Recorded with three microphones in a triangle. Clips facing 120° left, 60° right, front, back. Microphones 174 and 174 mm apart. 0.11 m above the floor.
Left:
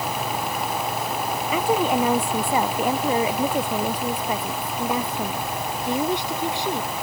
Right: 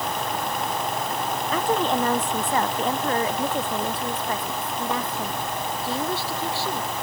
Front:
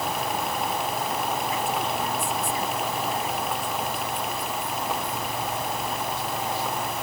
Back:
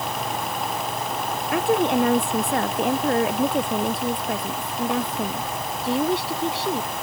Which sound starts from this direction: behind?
A woman speaking, at 1.5 s.